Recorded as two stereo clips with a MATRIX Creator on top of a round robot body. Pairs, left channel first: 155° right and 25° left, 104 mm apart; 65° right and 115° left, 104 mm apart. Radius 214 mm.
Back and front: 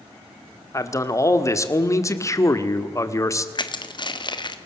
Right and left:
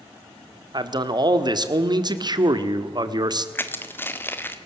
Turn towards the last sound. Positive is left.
turn(degrees=-130)